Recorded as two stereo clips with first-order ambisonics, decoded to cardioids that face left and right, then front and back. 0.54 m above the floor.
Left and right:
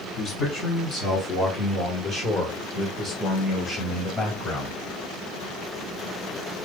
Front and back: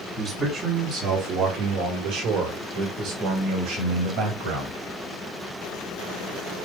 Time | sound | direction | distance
0.2 | a man speaking | 110° left | 1.3 m